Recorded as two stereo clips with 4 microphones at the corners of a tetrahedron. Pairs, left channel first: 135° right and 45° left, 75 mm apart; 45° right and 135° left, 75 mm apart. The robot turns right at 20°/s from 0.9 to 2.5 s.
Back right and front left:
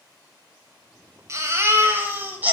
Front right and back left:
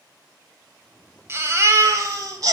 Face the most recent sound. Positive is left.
turn(degrees=110)